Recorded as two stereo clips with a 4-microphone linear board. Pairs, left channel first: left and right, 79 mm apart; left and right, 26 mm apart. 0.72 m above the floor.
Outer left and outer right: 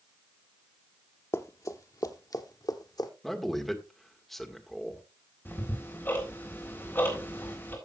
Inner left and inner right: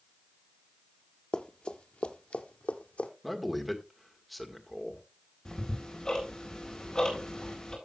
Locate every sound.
1.3 s running footsteps: 40° left (ahead or behind), 0.8 m; by 3.1 s 60° left (ahead or behind), 1.6 m
3.2 s a man speaking: 5° left (ahead or behind), 1.7 m
5.5 s ticking: 30° left (ahead or behind), 3.5 m